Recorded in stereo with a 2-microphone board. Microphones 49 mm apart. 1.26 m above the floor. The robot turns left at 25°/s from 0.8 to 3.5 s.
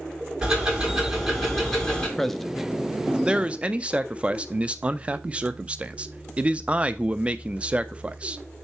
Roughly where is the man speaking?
Ahead.